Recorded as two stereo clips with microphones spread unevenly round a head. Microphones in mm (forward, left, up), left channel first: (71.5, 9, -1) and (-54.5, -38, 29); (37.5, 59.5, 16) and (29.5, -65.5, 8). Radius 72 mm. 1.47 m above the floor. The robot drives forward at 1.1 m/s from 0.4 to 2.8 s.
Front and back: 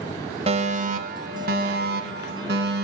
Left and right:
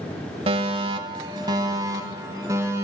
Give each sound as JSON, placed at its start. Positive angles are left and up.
{"t": 0.5, "sound": "a fire alarm", "azimuth_deg": -115, "distance_m": 1.3}